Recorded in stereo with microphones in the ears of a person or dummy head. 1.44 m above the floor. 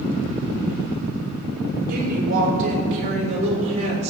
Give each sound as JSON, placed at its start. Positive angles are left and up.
{"t": 1.9, "sound": "a woman speaking", "side_deg": -55, "distance_m": 4.5}